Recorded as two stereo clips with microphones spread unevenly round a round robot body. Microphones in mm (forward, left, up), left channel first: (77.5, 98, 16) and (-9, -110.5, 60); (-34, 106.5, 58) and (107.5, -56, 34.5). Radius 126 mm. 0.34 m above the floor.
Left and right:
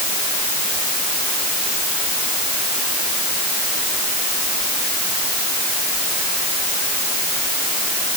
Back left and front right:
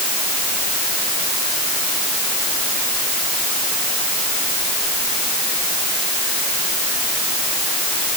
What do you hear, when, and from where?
Only background noise.